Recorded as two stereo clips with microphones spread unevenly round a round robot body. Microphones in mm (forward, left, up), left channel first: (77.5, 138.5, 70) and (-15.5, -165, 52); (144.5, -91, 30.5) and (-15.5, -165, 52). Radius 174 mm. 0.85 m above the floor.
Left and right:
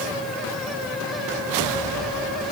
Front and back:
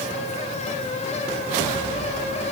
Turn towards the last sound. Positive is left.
No sound to turn to.